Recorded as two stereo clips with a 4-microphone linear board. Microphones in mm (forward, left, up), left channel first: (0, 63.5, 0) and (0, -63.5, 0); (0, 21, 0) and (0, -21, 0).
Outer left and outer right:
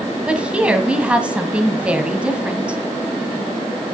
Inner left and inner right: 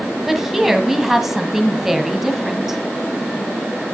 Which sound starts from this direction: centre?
A woman speaking, at 0.3 s.